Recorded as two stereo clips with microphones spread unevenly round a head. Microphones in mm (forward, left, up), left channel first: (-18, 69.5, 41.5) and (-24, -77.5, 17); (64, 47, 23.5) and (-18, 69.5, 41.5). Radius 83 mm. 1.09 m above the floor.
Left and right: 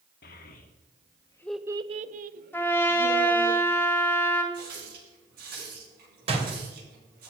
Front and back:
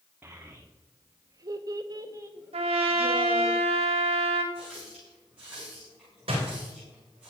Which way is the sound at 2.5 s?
165° left.